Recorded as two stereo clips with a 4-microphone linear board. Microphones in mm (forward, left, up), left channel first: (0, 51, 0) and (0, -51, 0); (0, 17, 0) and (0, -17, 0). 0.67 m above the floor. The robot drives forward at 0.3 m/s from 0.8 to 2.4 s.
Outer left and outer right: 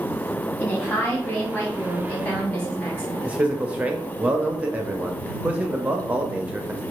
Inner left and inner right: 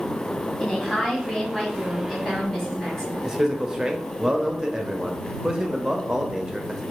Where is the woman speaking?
15° left (ahead or behind), 1.5 m.